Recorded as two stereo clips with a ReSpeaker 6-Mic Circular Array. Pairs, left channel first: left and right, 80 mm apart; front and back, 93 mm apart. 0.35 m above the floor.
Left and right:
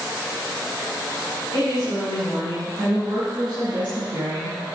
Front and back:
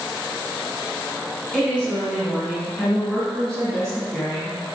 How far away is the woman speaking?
About 4 m.